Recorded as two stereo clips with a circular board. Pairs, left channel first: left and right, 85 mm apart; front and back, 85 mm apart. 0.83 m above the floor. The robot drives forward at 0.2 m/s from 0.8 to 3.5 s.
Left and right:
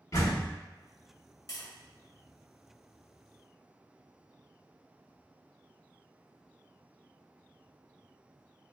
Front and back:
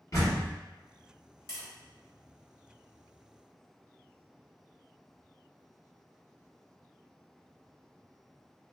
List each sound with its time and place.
0.1 s a door slam: 45° left, 1.7 m
1.5 s tapping: 50° left, 1.5 m